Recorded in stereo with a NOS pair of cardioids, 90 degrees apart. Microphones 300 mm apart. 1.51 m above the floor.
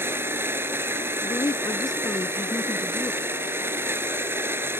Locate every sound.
0.0 s a machine running: 5° right
1.2 s a woman speaking: 10° left